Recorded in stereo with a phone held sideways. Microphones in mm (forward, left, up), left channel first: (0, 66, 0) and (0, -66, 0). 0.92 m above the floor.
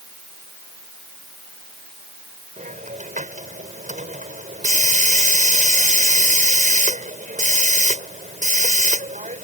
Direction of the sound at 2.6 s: 80° right.